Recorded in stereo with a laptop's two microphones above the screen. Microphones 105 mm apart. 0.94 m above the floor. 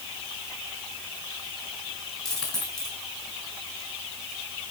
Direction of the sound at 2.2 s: 5° left (ahead or behind).